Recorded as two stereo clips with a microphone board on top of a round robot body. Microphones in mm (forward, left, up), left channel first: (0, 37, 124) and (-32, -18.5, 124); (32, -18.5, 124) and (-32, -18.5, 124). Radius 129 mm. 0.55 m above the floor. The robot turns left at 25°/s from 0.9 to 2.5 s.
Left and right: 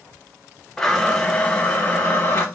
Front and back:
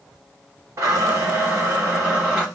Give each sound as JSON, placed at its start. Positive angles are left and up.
{"t": 0.8, "sound": "a blender", "azimuth_deg": 140, "distance_m": 1.8}